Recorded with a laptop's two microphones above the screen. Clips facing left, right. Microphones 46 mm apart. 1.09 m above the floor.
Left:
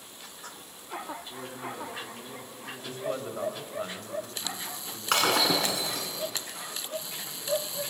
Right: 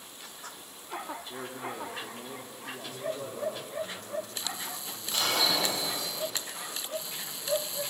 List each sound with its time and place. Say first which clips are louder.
1.3 s a man speaking: even; 25° right (ahead or behind), 3 m
2.8 s a man speaking: left 3 dB; 45° left (ahead or behind), 5 m
5.1 s breaking glass: left 4 dB; 80° left, 5 m